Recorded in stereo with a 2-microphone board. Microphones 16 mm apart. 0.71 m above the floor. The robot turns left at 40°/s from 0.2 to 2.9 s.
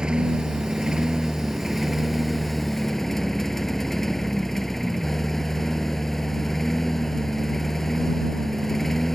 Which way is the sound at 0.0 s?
90° right.